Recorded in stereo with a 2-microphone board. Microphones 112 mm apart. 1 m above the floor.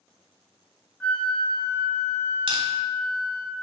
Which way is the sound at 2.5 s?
50° right (ahead or behind).